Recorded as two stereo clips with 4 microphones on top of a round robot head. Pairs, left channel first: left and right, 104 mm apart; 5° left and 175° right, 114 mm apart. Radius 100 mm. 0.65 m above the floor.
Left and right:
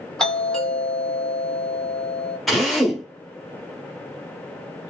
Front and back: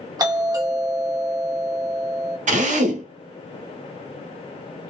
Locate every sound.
0.2 s a doorbell: 170° left, 1.8 m
2.5 s a drill: straight behind, 0.9 m